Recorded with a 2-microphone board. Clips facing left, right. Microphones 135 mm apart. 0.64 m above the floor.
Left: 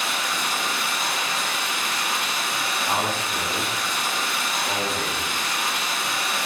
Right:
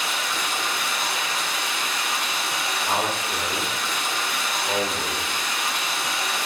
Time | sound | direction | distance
0.0 | running water | 5° left (ahead or behind) | 1.9 m
2.9 | a man speaking | 15° right (ahead or behind) | 1.0 m